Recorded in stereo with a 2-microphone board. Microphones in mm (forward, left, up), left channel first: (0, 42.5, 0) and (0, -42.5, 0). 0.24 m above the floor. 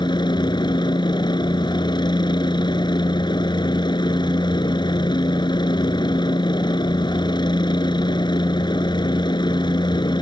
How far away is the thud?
No thud in this recording.